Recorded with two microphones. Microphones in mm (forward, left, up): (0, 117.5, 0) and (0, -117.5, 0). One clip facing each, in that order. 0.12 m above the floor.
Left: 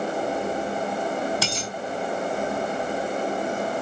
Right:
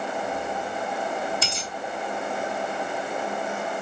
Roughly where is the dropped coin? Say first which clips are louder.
Left 4 dB; left.